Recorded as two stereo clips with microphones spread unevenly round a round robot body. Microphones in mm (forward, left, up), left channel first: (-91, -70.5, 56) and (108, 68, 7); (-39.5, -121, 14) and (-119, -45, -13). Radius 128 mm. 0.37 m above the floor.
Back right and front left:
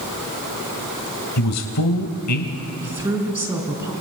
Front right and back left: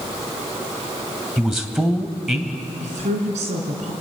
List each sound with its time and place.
1.4 s a man speaking: 140° right, 1.8 m
2.8 s a woman speaking: 115° left, 3.5 m